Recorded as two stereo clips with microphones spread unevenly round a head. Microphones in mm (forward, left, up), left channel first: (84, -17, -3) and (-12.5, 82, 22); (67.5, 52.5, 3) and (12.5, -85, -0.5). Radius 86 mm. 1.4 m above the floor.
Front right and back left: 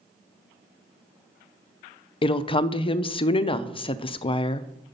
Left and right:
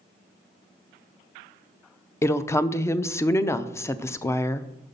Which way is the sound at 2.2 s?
5° right.